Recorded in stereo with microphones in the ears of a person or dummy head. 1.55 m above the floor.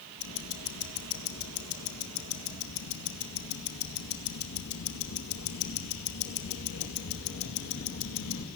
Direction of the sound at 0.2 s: 80° left.